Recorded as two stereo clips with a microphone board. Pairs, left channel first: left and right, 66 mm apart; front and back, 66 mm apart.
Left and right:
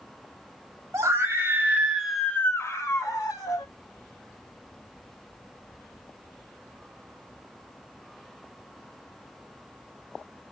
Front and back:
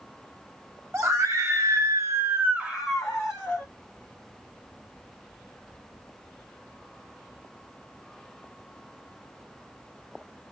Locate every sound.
0.9 s a scream: 130° right, 1.6 m; by 3.7 s 80° left, 1.6 m